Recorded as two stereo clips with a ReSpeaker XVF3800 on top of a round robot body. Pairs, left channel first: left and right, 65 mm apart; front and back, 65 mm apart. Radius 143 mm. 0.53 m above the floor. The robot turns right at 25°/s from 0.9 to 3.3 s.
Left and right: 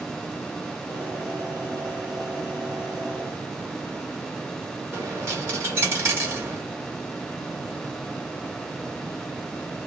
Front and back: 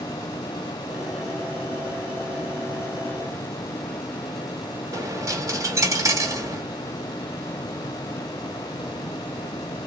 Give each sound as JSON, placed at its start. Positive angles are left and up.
{"t": 4.9, "sound": "a dropped coin", "azimuth_deg": -140, "distance_m": 1.4}